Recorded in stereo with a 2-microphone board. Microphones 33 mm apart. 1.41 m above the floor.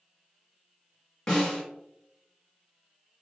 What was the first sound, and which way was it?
A snare drum, 20° left (ahead or behind).